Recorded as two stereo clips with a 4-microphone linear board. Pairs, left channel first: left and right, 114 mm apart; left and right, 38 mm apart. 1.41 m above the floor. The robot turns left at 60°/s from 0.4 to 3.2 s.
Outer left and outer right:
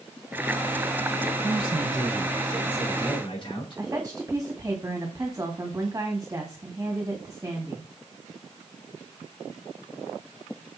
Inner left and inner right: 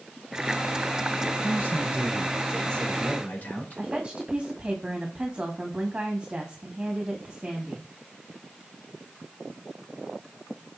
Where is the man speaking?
115° right, 5 m; by 3.8 s 135° left, 5 m.